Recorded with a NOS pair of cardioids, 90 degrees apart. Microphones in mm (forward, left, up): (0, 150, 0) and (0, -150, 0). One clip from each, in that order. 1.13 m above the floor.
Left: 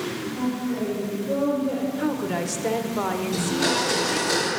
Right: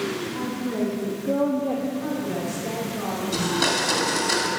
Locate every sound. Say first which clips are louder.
0.3 s a woman speaking: even; 55° right, 1.9 m; by 1.9 s 75° right, 1.3 m
2.0 s a woman speaking: left 2 dB; 65° left, 0.9 m
3.3 s a blender: right 3 dB; 55° right, 2.5 m